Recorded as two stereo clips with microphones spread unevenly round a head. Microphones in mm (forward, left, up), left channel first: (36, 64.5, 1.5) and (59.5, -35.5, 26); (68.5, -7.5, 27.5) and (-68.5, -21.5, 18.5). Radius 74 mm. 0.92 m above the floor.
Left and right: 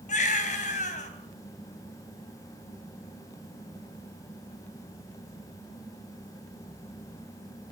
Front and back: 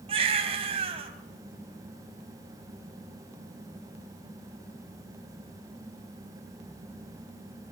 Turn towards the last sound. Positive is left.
turn(degrees=130)